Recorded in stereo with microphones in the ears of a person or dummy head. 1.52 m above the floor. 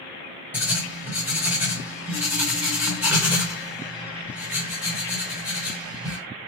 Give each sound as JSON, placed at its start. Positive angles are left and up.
{"t": 0.5, "sound": "writing", "side_deg": -10, "distance_m": 0.9}